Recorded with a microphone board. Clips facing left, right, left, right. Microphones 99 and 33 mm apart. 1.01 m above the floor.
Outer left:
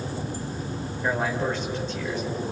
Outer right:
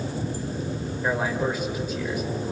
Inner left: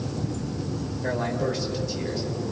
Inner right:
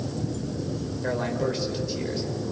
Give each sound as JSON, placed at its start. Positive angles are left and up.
{"t": 1.0, "sound": "a man speaking", "side_deg": -10, "distance_m": 4.5}